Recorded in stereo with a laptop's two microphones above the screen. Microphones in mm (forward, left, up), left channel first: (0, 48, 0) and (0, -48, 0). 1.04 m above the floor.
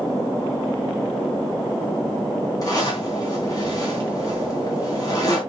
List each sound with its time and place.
2.6 s a zipper: 40° left (ahead or behind), 3.5 m